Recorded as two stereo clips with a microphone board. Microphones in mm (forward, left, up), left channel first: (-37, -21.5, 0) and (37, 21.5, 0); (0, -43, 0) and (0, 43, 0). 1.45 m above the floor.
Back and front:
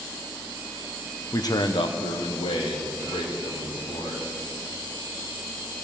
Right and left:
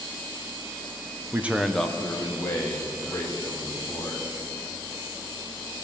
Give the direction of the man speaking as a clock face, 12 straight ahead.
7 o'clock.